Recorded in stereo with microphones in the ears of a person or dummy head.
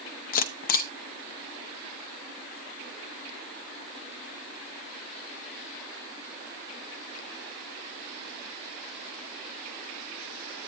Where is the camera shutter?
45° left (ahead or behind), 0.8 m.